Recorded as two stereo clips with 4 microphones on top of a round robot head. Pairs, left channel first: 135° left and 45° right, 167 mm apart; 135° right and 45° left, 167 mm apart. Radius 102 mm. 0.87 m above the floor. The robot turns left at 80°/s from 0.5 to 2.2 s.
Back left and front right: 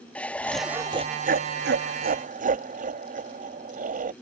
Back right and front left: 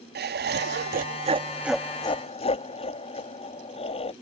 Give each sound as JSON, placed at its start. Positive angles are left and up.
{"t": 0.1, "sound": "laughter", "azimuth_deg": 55}